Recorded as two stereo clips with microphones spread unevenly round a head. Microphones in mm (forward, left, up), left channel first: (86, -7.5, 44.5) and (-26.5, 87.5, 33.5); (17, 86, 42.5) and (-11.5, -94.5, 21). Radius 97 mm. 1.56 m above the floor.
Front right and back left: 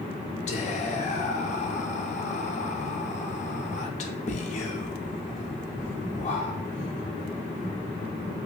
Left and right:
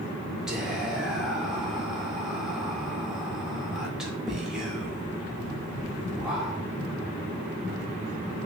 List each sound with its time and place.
0.5 s whispering: 10° right, 0.5 m